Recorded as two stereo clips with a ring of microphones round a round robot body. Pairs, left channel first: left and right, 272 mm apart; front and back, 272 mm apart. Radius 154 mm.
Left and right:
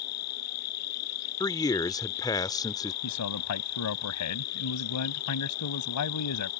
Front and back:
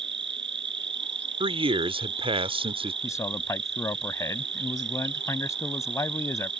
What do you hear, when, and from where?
0.0 s an insect: 130° left
1.4 s a man speaking: 145° left
3.0 s a man speaking: 80° left